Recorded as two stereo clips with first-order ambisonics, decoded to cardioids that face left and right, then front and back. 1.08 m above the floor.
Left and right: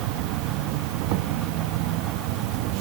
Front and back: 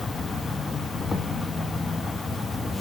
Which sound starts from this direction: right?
An insect, at 0.0 s.